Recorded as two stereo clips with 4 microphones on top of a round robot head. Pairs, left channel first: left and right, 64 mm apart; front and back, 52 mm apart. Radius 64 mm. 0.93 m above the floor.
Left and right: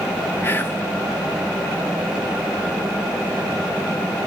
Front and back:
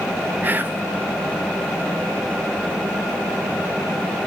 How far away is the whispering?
About 0.8 m.